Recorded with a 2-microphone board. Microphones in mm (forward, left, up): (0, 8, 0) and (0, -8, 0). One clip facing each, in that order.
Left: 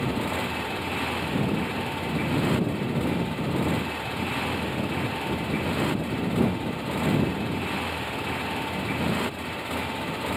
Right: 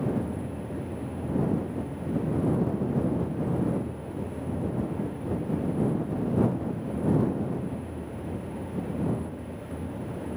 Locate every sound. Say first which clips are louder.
0.0 s a motorcycle: left 3 dB; 85° left